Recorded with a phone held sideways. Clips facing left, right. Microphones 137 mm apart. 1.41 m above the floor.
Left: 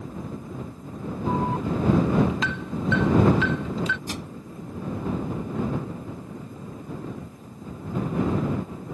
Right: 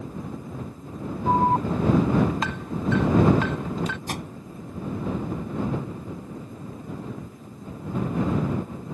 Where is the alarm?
45° right (ahead or behind).